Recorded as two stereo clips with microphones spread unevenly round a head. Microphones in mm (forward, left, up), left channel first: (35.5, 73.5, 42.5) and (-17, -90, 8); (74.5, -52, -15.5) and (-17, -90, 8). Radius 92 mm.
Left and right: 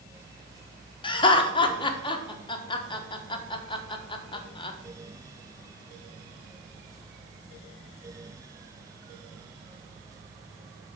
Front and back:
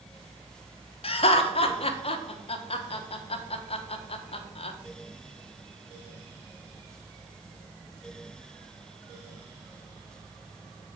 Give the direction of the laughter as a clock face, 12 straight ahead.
12 o'clock.